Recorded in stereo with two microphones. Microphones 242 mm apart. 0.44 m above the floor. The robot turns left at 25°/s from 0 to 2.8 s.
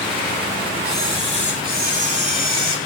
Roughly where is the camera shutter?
Behind.